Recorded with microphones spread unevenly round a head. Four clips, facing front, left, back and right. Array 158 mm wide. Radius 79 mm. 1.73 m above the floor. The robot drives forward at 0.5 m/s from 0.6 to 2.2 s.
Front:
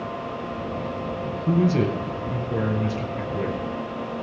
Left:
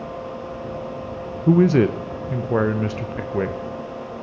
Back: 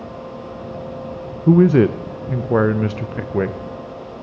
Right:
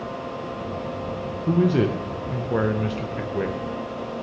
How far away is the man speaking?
About 0.5 m.